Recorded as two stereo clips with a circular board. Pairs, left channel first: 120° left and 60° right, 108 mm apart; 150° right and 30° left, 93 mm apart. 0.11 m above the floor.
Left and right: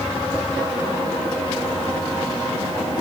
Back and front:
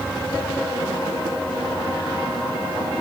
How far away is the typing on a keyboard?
I don't hear typing on a keyboard.